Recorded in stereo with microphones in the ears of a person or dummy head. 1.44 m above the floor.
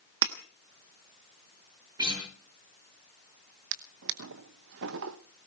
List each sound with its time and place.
0.2 s breaking glass: 60° right (ahead or behind), 1.3 m
2.0 s a guitar: 20° right (ahead or behind), 8 m
3.7 s a drawer: 55° right (ahead or behind), 0.8 m